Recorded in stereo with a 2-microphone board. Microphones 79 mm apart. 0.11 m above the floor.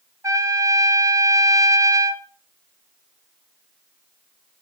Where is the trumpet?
45° right (ahead or behind), 2.5 m.